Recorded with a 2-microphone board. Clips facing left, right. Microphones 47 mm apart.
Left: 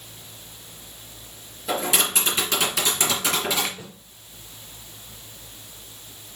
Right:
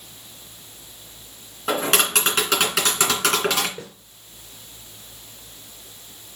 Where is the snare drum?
70° right (ahead or behind), 4 m.